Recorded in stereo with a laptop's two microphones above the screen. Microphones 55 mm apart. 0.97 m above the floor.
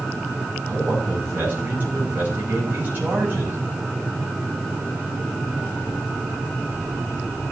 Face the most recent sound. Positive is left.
turn(degrees=-35)  # may be behind; listen again after turning